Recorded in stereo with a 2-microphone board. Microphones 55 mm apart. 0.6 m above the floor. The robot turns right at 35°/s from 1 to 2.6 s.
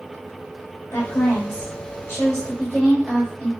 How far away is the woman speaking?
About 2 m.